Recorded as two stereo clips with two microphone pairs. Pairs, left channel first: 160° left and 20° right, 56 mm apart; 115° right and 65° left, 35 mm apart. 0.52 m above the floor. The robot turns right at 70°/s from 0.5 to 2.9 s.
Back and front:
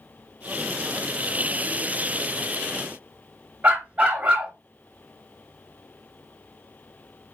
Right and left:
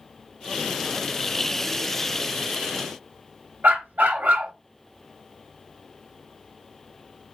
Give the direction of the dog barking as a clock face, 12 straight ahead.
11 o'clock.